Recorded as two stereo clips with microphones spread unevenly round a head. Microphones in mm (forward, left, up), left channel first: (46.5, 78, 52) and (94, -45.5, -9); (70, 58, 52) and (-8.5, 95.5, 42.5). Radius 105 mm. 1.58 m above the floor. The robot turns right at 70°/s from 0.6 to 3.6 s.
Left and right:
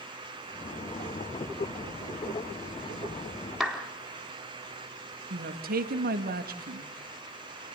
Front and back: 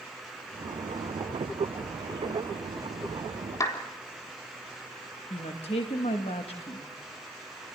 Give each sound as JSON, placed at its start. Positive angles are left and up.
{"t": 3.6, "sound": "a clap", "azimuth_deg": 25, "distance_m": 4.0}
{"t": 5.3, "sound": "a woman speaking", "azimuth_deg": -65, "distance_m": 2.0}